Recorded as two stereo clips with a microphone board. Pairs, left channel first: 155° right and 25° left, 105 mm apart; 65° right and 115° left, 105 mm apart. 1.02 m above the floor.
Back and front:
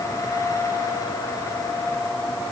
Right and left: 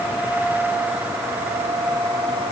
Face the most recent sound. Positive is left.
No sound to turn to.